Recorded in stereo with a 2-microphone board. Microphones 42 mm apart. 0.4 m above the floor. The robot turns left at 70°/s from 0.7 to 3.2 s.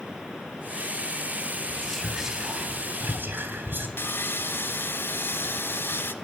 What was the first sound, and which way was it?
Whispering, 25° left.